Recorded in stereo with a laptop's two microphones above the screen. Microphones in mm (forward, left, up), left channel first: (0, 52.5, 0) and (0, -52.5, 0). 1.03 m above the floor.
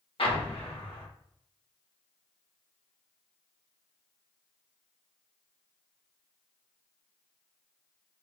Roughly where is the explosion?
Left.